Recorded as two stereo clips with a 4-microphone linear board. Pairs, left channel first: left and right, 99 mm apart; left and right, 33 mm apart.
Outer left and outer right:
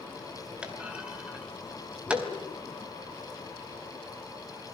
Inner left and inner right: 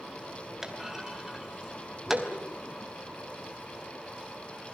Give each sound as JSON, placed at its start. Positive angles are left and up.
{"t": 0.6, "sound": "a clunk", "side_deg": -15, "distance_m": 3.5}
{"t": 2.1, "sound": "laughter", "side_deg": 25, "distance_m": 3.0}